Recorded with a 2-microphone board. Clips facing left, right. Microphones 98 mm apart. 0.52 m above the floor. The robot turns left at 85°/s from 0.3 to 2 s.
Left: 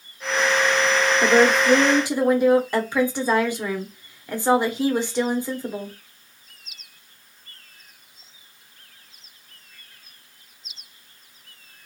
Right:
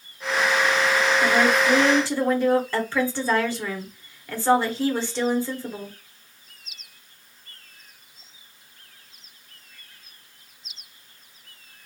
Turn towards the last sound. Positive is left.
turn(degrees=30)